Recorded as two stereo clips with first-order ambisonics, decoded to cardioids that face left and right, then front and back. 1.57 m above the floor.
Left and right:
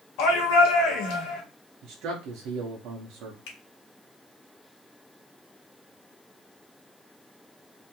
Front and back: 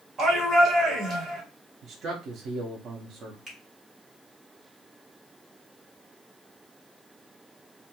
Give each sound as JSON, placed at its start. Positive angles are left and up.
{"t": 0.2, "sound": "a shout", "azimuth_deg": 115, "distance_m": 1.1}
{"t": 1.8, "sound": "a man speaking", "azimuth_deg": -125, "distance_m": 0.6}
{"t": 3.5, "sound": "a finger snap", "azimuth_deg": 100, "distance_m": 1.1}